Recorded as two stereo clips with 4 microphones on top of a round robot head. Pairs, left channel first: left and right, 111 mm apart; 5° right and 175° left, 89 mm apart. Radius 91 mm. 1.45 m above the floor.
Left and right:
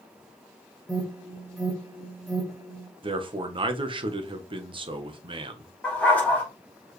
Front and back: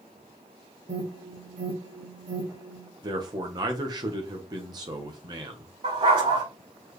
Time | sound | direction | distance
0.9 | an alarm | straight behind | 4 m
3.0 | a man speaking | 135° right | 1.3 m
5.8 | a dog barking | 165° left | 5 m